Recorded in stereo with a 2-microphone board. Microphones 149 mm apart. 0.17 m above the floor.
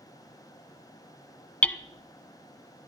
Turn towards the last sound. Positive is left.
turn(degrees=10)  # may be behind; listen again after turning